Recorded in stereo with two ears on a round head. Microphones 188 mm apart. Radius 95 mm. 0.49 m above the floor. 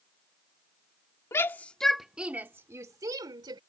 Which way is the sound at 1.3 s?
15° left (ahead or behind).